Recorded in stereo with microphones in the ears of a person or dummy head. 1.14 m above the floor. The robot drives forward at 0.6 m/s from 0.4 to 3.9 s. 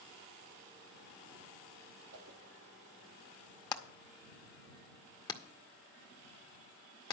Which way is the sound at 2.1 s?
70° right (ahead or behind).